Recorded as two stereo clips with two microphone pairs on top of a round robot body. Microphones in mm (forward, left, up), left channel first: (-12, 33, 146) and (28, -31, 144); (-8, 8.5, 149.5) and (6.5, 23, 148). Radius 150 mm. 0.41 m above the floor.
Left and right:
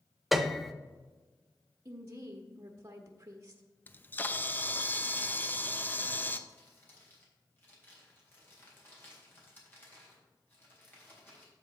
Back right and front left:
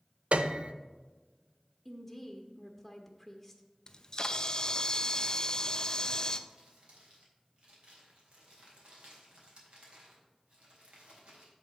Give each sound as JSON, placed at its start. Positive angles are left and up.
{"t": 0.3, "sound": "a piano", "azimuth_deg": 30, "distance_m": 0.6}
{"t": 1.9, "sound": "a woman speaking", "azimuth_deg": -40, "distance_m": 1.2}
{"t": 3.9, "sound": "a camera shutter", "azimuth_deg": 175, "distance_m": 0.9}
{"t": 6.5, "sound": "crumpling", "azimuth_deg": 60, "distance_m": 3.5}